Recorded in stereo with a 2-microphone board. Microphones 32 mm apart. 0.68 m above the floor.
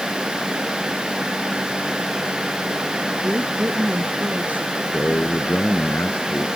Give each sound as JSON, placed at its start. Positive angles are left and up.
{"t": 3.2, "sound": "a woman speaking", "side_deg": -55}
{"t": 4.9, "sound": "a man speaking", "side_deg": 85}